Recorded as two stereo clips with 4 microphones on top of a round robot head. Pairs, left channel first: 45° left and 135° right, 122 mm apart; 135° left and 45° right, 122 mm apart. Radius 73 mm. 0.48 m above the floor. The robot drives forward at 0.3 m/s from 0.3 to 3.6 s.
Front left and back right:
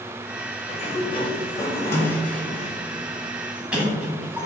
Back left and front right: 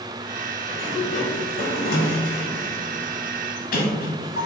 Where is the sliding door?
85° left, 0.6 m; by 4.5 s 145° left, 1.0 m.